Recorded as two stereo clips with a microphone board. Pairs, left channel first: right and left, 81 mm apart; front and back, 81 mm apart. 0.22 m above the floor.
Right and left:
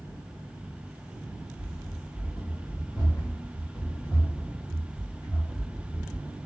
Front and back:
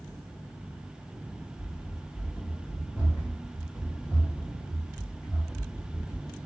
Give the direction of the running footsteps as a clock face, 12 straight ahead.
2 o'clock.